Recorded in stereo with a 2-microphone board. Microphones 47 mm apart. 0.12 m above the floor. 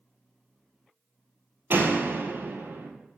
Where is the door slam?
50° right (ahead or behind), 2.5 m.